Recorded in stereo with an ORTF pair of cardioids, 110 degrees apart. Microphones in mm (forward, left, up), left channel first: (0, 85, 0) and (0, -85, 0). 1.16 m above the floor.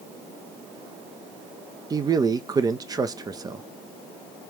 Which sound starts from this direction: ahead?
A man speaking, at 1.9 s.